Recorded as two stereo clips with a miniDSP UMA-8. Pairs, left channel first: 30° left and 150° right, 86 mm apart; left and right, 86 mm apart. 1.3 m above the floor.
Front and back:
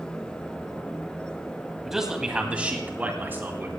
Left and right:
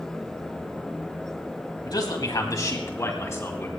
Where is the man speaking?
125° left, 2 m; by 3.7 s 150° left, 3 m.